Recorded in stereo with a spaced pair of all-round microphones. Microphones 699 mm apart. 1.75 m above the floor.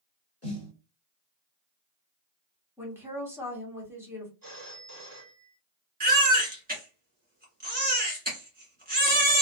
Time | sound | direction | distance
0.4 | a snare drum | 20° left (ahead or behind) | 1.5 m
2.8 | a woman speaking | 5° right (ahead or behind) | 1.2 m
4.4 | a phone ringing | 30° right (ahead or behind) | 1.0 m
6.0 | a baby crying | 15° right (ahead or behind) | 1.2 m